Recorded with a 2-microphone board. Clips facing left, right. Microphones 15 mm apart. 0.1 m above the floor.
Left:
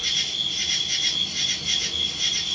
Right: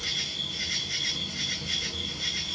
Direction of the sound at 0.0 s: 60° left (ahead or behind).